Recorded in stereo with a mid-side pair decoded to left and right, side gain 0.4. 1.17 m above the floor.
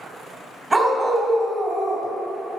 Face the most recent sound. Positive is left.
turn(degrees=-45)